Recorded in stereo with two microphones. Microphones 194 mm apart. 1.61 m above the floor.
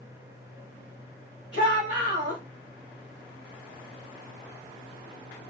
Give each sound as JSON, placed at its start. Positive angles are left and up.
{"t": 1.5, "sound": "a shout", "side_deg": 70, "distance_m": 3.5}